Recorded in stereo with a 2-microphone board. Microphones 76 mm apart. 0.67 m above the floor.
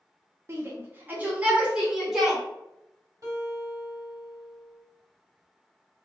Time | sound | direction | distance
0.5 | a shout | 30° right (ahead or behind) | 0.8 m
3.2 | a guitar | 45° right (ahead or behind) | 1.4 m